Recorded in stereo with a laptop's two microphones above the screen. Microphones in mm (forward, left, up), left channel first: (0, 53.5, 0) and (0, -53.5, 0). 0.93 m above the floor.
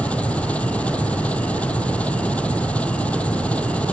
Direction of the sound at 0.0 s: 10° left (ahead or behind).